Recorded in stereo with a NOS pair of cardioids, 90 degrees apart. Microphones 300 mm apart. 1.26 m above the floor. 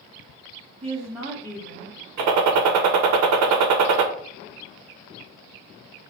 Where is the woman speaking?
20° right, 0.6 m; by 2.0 s 15° left, 1.0 m.